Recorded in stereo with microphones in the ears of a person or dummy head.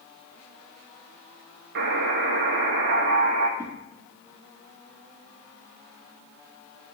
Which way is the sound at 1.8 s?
65° right (ahead or behind).